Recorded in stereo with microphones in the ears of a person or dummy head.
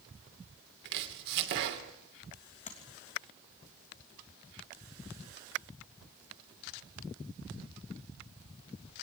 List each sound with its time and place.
0.8 s chopping: 65° right (ahead or behind), 2.5 m
2.7 s tapping: 40° left (ahead or behind), 3 m